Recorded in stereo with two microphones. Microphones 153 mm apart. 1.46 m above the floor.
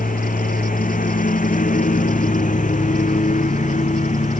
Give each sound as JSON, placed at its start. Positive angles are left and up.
{"t": 0.0, "sound": "a lawn mower", "side_deg": 65}